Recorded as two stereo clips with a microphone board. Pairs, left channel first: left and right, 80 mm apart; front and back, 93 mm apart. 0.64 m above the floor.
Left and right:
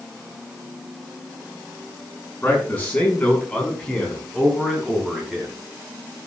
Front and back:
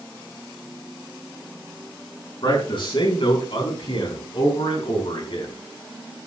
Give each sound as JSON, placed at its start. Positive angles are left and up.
{"t": 2.4, "sound": "a man speaking", "azimuth_deg": 25, "distance_m": 6.5}